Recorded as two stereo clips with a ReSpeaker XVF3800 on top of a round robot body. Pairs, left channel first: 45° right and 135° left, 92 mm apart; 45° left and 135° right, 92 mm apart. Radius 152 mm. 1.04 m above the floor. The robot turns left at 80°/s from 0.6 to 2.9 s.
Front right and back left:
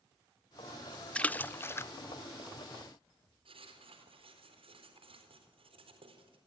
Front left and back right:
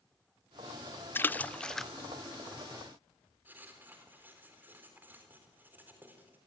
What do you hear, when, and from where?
1.1 s a splash: 15° left, 0.5 m; by 1.9 s 45° right, 0.5 m
3.5 s writing: 155° left, 4 m